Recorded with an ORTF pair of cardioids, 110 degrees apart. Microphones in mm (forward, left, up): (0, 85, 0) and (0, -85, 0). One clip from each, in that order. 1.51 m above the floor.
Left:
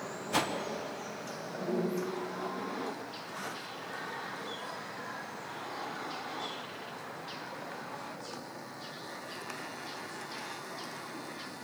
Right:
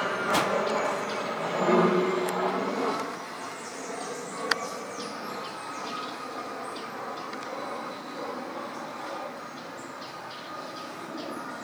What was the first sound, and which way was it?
A whoosh, 15° right.